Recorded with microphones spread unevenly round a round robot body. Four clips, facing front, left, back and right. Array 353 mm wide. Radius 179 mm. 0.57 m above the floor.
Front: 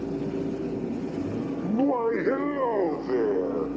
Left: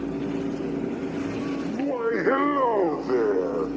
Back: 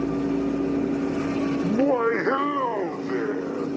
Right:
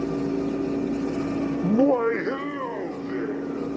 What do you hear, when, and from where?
1.6 s laughter: 105° right, 0.9 m; by 3.7 s 85° left, 2.5 m